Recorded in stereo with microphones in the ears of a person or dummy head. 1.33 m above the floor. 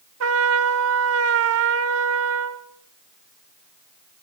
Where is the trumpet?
75° right (ahead or behind), 1.6 m.